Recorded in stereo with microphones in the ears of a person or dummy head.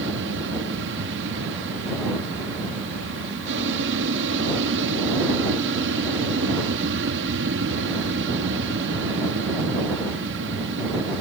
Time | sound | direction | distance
0.0 | an aircraft | 60° right (ahead or behind) | ?